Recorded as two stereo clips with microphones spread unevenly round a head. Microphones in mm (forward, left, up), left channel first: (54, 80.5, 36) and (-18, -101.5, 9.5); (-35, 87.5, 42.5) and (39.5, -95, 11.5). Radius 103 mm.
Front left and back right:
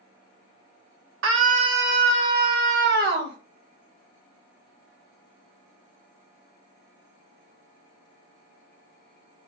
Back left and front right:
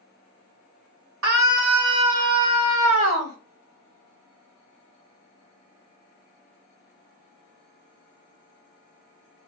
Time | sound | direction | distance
1.2 | a scream | 90° right | 2.5 m